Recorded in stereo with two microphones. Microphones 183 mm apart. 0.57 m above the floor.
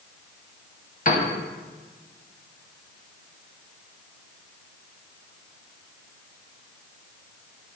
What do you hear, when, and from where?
1.1 s a piano: 50° left (ahead or behind), 0.6 m